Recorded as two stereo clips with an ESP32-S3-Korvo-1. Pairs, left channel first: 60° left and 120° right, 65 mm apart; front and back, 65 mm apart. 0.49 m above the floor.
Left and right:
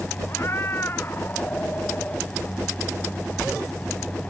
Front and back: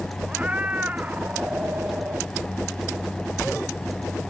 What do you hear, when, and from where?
0.3 s a cat meowing: 110° left; by 2.3 s 125° left